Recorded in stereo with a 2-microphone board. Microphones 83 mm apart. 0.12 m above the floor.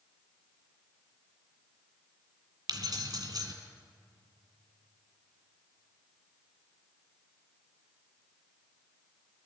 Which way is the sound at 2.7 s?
50° right (ahead or behind).